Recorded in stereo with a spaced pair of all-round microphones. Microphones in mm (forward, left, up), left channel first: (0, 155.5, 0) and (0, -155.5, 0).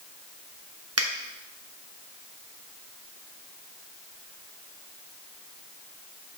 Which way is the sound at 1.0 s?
50° right (ahead or behind).